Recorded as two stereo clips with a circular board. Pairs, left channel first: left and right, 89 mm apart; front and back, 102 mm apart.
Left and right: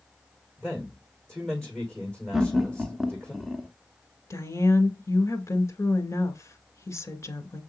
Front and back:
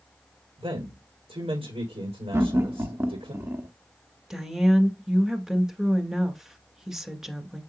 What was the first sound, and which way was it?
A man speaking, 165° left.